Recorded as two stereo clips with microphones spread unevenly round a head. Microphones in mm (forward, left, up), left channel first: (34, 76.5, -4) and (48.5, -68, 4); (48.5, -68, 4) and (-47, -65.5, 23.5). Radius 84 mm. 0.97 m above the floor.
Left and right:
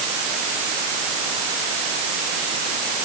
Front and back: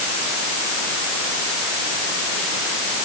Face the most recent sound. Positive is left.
No sound to turn to.